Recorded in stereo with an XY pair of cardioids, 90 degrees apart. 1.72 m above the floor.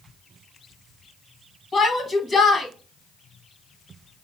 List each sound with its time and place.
1.7 s a shout: 50° left, 1.9 m